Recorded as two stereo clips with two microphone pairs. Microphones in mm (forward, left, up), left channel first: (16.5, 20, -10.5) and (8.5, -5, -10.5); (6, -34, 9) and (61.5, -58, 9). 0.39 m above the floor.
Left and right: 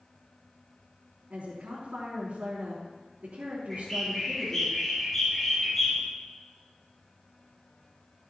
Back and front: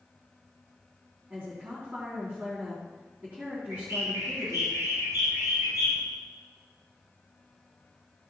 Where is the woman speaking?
90° right, 4 m.